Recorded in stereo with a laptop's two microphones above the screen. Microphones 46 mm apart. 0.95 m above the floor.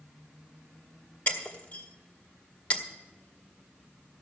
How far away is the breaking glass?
About 1.7 m.